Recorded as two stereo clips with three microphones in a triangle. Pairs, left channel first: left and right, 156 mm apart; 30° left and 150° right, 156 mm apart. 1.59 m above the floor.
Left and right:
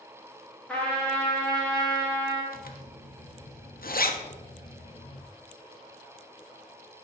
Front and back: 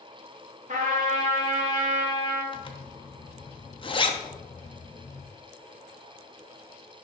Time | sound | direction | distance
0.7 | a trumpet | 170° left | 3 m
2.5 | a zipper | 85° left | 1.0 m